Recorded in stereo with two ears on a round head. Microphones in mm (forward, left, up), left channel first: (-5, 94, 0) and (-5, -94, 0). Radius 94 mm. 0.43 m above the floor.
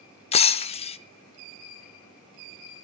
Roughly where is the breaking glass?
Left.